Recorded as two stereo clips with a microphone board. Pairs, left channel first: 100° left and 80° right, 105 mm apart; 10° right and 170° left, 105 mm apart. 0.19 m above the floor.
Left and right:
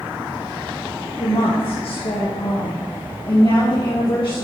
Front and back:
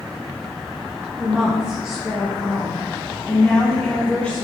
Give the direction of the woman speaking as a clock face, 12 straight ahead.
9 o'clock.